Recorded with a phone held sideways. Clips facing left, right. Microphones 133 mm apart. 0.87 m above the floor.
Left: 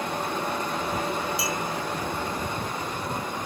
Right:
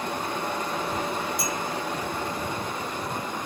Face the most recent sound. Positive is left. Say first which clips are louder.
# left 1 dB
turn(degrees=-50)  # may be behind; listen again after turning